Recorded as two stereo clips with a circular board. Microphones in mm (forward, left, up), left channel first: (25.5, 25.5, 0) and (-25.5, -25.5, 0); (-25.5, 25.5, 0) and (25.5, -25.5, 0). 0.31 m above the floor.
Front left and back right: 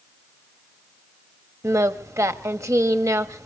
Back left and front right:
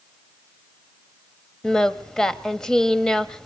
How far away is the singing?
About 1.1 m.